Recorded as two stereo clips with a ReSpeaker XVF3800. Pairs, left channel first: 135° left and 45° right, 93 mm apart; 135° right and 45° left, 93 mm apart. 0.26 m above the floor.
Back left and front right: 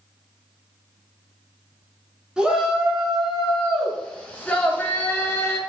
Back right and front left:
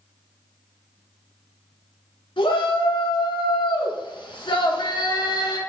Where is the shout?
125° right, 3 m; by 5.6 s 165° right, 3.5 m.